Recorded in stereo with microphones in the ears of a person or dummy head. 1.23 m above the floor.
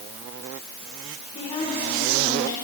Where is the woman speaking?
25° left (ahead or behind), 5 m; by 2.5 s 20° left (ahead or behind), 6 m.